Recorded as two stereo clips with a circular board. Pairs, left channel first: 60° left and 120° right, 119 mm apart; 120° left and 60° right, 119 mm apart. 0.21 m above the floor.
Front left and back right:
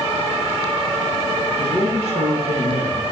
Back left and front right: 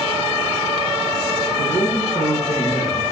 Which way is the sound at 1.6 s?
155° right.